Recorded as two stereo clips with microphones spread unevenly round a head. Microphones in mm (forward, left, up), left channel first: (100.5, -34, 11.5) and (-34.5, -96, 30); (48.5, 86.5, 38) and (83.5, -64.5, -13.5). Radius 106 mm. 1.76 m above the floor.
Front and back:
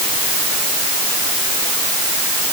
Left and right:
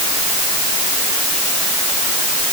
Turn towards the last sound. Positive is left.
No sound to turn to.